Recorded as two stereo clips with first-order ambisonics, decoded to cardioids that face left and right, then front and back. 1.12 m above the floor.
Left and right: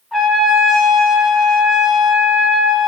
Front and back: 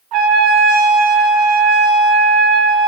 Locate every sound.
0.1 s a trumpet: 170° left, 1.1 m